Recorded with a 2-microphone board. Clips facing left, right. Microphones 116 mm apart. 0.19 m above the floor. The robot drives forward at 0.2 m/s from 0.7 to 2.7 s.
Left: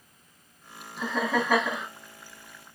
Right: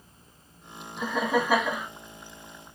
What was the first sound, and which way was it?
Laughter, 10° right (ahead or behind).